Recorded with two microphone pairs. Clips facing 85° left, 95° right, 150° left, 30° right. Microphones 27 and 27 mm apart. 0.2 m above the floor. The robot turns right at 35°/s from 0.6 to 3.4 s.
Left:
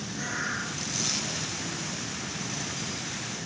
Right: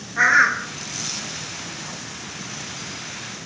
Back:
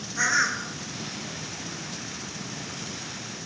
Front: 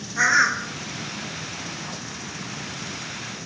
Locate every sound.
0.2 s a bird: 100° right, 1.7 m